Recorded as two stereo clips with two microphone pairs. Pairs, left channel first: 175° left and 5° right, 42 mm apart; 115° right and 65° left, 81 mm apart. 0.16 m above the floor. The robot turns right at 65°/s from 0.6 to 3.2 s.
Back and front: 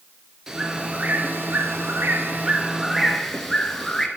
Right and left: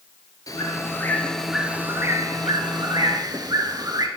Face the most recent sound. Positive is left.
turn(degrees=95)